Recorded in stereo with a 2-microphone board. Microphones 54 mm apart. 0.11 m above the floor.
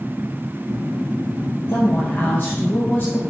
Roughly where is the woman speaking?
Left.